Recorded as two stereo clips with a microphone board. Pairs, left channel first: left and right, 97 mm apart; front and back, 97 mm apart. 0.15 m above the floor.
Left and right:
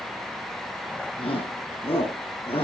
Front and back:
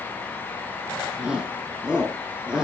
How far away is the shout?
About 6 m.